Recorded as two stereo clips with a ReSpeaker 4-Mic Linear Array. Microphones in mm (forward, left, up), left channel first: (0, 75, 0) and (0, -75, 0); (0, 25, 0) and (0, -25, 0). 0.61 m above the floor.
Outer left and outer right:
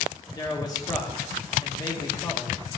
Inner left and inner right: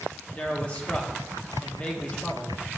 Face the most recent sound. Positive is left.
turn(degrees=25)  # may be behind; listen again after turning